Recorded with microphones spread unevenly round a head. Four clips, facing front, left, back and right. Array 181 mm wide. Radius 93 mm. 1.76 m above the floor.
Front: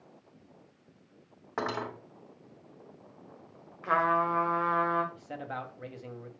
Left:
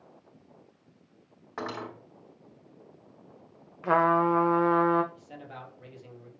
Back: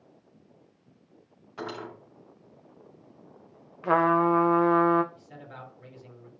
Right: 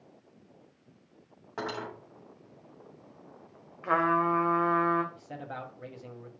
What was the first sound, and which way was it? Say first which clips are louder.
Cutlery clinking: even, front 4 dB; 5° right.